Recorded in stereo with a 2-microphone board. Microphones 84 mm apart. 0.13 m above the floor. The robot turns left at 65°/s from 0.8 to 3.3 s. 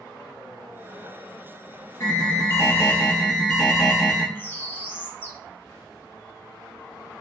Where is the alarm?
90° left, 1.2 m; by 4.2 s 5° left, 1.2 m.